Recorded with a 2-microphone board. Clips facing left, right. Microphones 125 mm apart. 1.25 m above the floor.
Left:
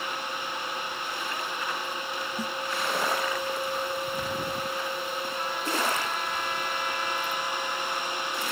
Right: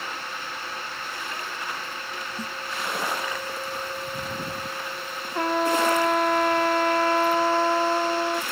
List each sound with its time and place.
2.4 s a snare drum: 10° left (ahead or behind)
5.3 s a trumpet: 80° right